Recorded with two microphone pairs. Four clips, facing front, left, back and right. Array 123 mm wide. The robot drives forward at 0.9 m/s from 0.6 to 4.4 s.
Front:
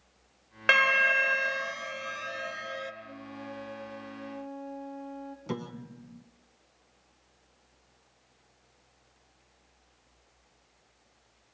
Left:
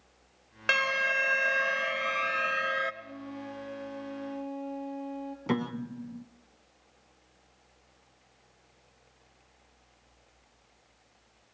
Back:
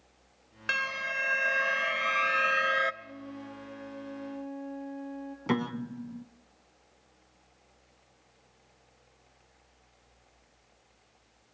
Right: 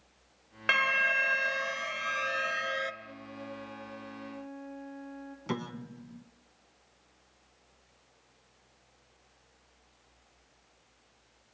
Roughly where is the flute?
Left.